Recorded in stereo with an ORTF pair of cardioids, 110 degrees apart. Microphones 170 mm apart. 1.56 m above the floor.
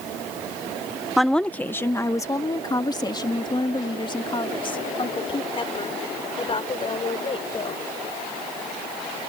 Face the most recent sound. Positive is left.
turn(degrees=35)